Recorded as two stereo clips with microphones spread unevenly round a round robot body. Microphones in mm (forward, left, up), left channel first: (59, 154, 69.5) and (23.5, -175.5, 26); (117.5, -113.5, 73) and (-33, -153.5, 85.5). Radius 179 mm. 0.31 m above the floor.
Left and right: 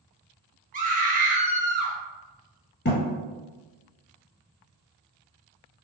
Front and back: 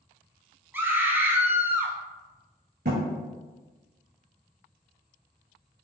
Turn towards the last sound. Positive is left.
turn(degrees=145)